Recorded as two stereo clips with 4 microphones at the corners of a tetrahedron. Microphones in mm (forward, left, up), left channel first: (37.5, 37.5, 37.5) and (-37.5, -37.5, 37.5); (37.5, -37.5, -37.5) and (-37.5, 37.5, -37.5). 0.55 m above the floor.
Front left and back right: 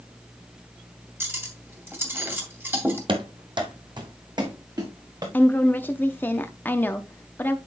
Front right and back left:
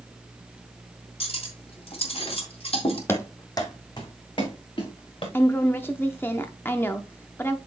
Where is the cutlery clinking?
65° right, 2 m.